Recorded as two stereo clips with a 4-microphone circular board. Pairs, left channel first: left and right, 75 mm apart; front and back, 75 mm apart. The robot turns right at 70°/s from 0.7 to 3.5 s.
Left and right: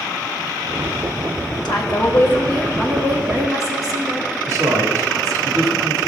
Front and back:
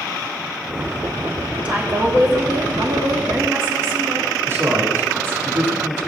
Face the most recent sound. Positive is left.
turn(degrees=-125)